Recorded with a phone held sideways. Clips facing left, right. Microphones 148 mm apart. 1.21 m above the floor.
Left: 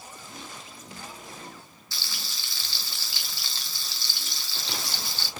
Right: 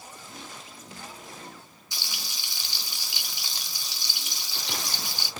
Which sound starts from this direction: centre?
Frying, at 1.9 s.